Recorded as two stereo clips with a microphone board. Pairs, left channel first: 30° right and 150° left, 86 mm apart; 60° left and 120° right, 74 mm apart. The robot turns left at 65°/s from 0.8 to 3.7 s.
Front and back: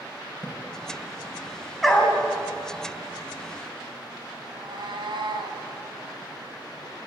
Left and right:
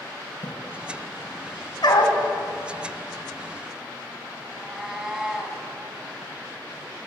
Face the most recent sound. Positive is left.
turn(degrees=155)